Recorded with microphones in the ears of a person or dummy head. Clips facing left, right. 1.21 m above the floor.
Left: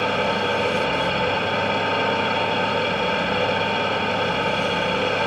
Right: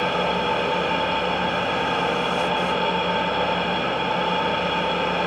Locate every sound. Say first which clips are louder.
0.0 s an engine running: left 1 dB; 30° left (ahead or behind), 1.8 m